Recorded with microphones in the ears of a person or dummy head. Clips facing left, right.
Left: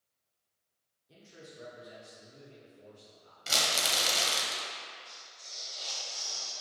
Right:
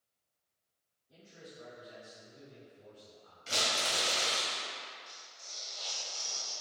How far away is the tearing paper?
About 1.1 m.